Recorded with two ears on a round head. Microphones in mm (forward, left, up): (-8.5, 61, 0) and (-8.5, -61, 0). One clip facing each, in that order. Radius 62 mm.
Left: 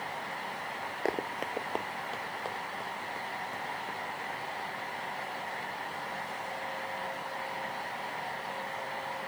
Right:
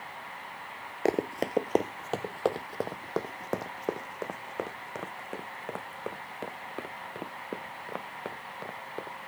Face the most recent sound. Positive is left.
turn(degrees=-80)